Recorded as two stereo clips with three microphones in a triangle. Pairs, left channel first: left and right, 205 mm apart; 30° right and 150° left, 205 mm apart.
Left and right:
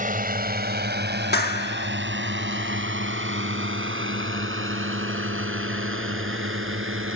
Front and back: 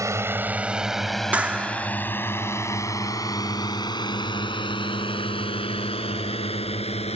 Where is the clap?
70° left.